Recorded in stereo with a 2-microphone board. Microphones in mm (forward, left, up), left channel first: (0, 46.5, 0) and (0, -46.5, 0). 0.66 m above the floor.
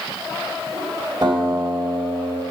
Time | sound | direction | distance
1.2 | a guitar | 45° right (ahead or behind) | 4 m